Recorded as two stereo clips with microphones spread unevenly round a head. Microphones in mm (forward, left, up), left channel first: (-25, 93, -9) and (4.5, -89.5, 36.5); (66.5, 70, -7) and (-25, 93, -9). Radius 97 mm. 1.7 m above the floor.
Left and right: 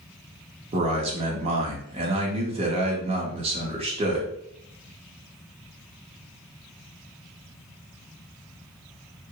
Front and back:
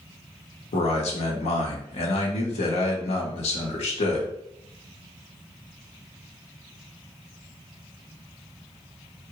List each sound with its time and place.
0.7 s a man speaking: 20° right, 0.8 m